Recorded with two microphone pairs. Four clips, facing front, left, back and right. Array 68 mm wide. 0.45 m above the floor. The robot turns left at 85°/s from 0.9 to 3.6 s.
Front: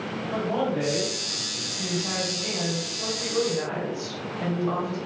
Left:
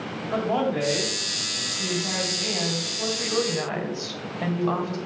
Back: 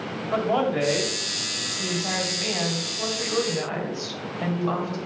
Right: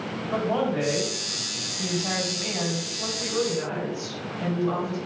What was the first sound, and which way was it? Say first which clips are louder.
A man speaking: left 1 dB, back 4 dB; straight behind.